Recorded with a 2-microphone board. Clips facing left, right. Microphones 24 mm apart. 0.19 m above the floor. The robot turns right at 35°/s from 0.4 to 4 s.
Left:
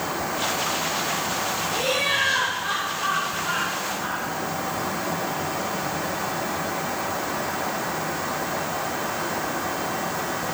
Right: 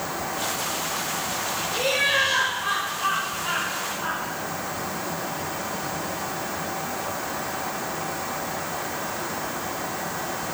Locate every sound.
1.7 s laughter: 165° right, 3.5 m; by 4.2 s 85° right, 3.5 m